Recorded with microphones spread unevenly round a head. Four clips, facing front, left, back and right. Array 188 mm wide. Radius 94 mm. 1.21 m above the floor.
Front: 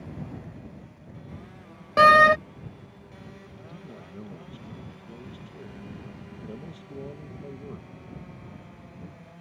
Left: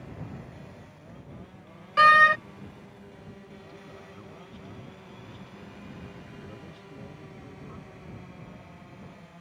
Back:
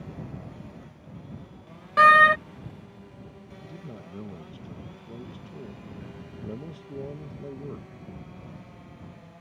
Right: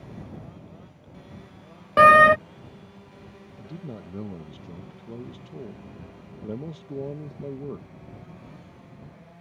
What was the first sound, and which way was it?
A door slam, 65° right.